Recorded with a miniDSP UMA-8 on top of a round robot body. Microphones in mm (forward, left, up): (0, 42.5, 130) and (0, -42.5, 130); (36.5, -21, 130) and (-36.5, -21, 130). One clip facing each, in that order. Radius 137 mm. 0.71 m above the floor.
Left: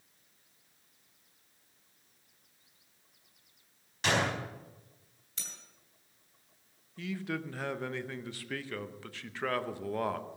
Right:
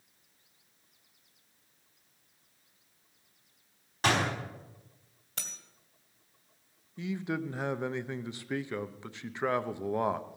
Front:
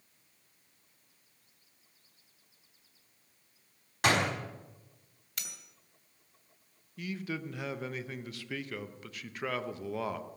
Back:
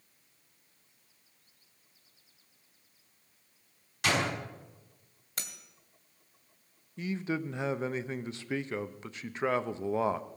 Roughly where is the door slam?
Ahead right.